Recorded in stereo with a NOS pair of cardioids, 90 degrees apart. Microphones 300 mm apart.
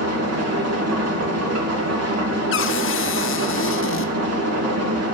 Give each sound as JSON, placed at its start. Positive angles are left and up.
{"t": 0.0, "sound": "an engine running", "azimuth_deg": -55, "distance_m": 1.9}
{"t": 2.5, "sound": "a cupboard door", "azimuth_deg": 45, "distance_m": 0.6}